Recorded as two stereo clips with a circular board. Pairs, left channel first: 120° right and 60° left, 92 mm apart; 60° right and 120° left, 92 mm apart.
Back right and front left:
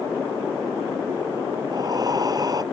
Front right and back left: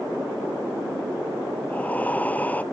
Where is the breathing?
15° left.